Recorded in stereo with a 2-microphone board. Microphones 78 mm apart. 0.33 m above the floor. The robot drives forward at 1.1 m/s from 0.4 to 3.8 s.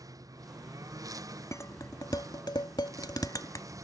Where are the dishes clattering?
40° left (ahead or behind).